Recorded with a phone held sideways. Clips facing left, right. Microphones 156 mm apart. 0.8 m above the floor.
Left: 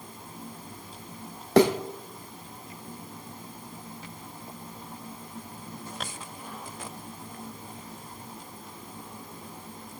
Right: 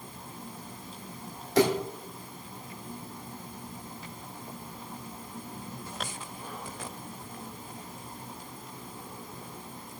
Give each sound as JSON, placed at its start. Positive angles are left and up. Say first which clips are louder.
{"t": 1.6, "sound": "a thud", "louder": "left 4 dB", "side_deg": 70, "distance_m": 2.5}